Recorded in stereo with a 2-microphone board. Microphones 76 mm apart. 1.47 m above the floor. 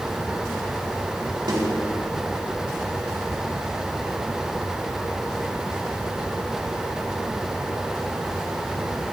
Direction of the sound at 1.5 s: 80° right.